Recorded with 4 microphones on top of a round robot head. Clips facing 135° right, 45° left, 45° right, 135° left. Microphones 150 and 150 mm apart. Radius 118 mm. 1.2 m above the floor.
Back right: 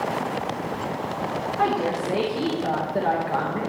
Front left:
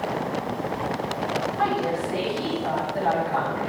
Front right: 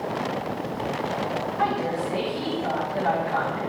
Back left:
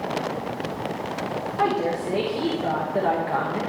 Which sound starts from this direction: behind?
A woman speaking, at 1.6 s.